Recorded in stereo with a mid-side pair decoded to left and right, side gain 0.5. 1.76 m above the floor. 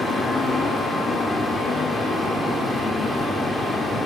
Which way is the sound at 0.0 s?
5° left.